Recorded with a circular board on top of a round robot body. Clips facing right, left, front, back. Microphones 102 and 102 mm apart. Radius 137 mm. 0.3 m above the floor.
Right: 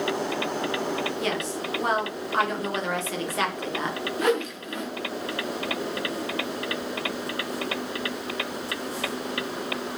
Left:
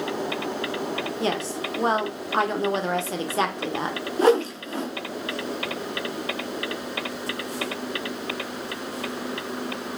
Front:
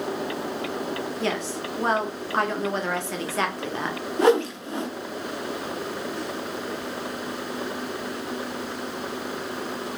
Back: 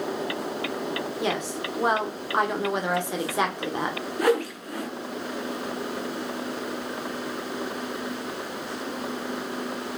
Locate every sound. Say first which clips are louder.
1.2 s a woman speaking: left 2 dB, even; 115° left, 1.0 m
4.2 s a whoosh: left 6 dB, front 4 dB; 50° left, 0.6 m